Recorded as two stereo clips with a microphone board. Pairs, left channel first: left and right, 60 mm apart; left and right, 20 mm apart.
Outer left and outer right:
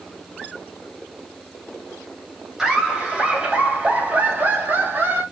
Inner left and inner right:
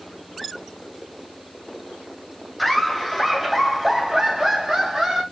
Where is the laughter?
10° right (ahead or behind), 2.5 m; by 5.2 s 35° right (ahead or behind), 3.5 m.